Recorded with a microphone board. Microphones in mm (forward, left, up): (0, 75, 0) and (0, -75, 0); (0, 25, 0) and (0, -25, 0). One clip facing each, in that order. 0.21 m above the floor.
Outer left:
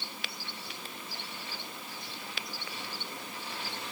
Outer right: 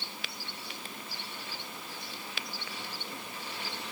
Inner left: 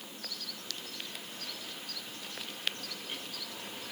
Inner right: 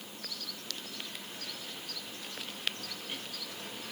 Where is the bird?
I don't hear a bird.